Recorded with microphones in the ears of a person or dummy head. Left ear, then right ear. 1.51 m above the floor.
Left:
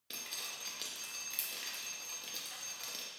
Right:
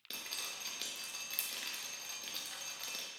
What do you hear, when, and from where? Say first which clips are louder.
0.1 s dripping: right 1 dB; 10° right (ahead or behind), 0.5 m